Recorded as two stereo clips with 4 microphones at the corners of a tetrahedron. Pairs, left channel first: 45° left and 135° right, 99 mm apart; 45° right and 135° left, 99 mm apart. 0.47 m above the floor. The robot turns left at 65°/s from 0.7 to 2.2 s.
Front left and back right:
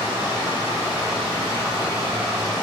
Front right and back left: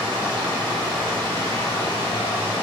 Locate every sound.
0.0 s running water: 55° left, 1.6 m; by 2.6 s 40° right, 1.6 m